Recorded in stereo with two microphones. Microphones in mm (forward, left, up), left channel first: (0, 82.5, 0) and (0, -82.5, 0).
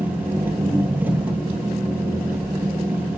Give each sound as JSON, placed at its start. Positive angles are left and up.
{"t": 0.0, "sound": "an engine running", "side_deg": -10, "distance_m": 1.8}